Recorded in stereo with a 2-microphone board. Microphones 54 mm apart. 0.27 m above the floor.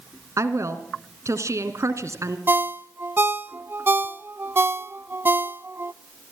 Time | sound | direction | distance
0.4 | a woman speaking | 70° right (ahead or behind) | 2.5 m
2.5 | a ringtone | 45° right (ahead or behind) | 0.5 m